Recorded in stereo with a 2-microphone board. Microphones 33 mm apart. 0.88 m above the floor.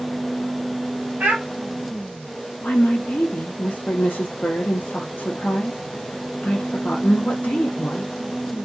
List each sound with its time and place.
1.2 s a child speaking: 75° right (ahead or behind), 1.7 m
2.6 s a woman speaking: 55° left (ahead or behind), 0.6 m